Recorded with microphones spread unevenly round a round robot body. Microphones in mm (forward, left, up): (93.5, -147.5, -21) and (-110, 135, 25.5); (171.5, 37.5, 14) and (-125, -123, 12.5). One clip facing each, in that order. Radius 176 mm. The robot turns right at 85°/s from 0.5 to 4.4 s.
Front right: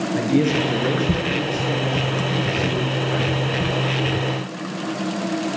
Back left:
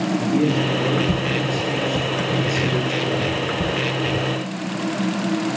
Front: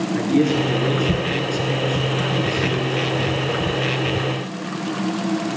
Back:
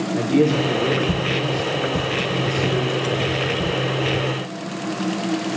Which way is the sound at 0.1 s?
50° right.